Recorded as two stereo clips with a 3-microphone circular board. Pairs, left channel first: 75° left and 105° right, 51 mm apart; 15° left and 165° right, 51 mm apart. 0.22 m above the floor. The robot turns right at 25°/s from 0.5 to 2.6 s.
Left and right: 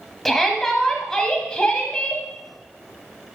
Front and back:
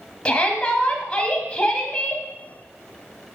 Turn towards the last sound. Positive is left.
turn(degrees=55)